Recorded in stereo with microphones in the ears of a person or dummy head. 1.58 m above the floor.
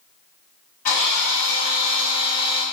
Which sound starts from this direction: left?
A drill, at 0.8 s.